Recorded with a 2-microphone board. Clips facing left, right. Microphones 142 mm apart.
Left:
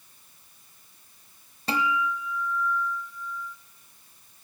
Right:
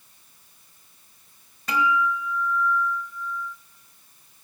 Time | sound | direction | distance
1.7 | a guitar | 30° left (ahead or behind) | 1.1 m